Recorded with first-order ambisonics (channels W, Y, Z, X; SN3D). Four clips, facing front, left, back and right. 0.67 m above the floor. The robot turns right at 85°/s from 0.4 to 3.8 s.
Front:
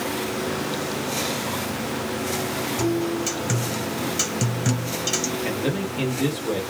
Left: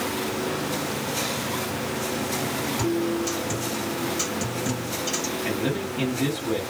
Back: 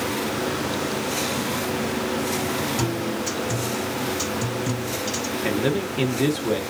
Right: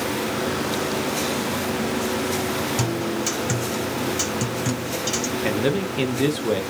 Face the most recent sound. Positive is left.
turn(degrees=-115)